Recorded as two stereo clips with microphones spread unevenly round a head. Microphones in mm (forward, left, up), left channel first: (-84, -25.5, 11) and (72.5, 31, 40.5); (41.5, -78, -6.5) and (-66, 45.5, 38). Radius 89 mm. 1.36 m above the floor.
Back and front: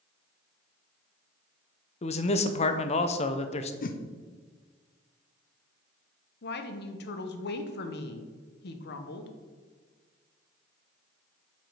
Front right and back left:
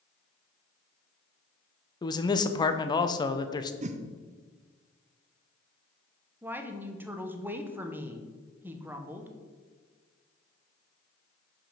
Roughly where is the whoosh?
Behind.